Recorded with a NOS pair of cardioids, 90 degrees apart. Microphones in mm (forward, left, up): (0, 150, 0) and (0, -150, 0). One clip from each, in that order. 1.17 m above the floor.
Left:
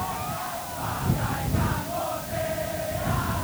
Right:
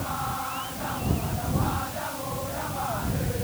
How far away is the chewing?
No chewing in this recording.